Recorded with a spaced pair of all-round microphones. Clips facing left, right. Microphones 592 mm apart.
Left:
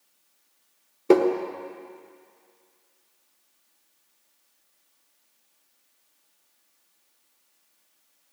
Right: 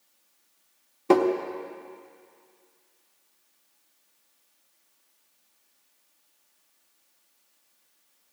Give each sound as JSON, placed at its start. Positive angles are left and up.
{"t": 1.1, "sound": "tapping", "side_deg": -20, "distance_m": 1.2}